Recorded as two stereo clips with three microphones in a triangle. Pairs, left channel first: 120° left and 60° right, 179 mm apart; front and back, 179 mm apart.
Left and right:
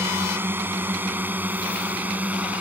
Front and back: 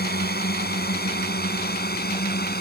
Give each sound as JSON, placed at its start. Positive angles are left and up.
{"t": 0.0, "sound": "a drone", "azimuth_deg": 15}